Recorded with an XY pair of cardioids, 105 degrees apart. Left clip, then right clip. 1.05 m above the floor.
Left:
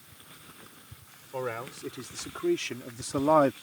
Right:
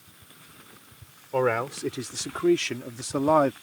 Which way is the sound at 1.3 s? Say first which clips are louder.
Right 10 dB; 65° right.